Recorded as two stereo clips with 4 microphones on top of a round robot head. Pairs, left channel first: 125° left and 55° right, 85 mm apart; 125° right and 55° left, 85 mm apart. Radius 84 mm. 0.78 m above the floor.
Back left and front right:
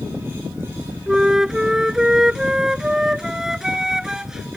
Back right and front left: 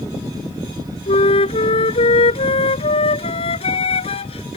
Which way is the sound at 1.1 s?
140° right.